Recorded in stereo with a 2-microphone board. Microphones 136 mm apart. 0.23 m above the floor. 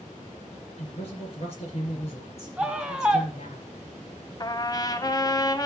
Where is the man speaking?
45° left (ahead or behind), 4 m.